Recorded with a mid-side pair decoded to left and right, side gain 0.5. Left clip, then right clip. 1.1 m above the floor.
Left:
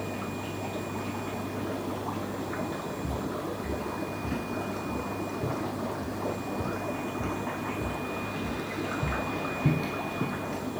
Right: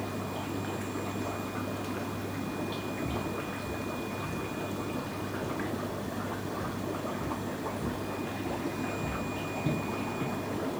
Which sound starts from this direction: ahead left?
Footsteps, at 3.0 s.